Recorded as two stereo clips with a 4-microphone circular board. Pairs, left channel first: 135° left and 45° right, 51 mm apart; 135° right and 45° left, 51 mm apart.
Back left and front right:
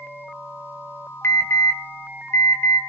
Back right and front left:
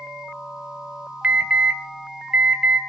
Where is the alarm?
110° left, 2 m.